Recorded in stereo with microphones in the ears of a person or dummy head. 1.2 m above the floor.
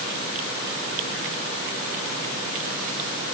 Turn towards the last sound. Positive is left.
No sound to turn to.